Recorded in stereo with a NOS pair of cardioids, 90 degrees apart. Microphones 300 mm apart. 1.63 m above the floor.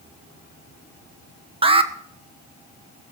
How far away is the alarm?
About 1.1 m.